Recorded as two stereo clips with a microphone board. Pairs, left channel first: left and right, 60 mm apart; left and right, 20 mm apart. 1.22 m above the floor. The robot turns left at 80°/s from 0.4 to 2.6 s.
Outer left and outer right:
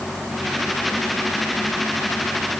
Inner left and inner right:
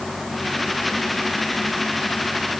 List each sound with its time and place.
Only background noise.